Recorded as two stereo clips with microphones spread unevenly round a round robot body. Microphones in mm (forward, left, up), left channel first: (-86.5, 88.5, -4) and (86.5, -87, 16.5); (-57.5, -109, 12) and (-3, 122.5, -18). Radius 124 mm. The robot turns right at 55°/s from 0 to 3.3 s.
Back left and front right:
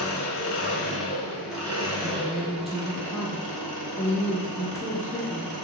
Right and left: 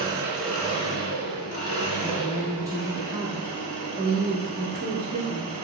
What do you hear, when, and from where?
0.0 s an engine running: 145° left, 0.8 m; by 5.7 s 35° right, 0.8 m
2.0 s a woman speaking: 20° left, 0.7 m; by 5.5 s 90° left, 0.7 m